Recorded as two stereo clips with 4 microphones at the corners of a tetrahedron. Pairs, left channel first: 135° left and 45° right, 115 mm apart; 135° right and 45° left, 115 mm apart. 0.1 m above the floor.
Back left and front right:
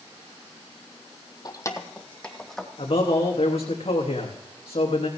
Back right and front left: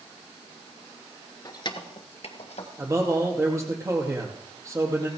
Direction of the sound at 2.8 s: 105° left.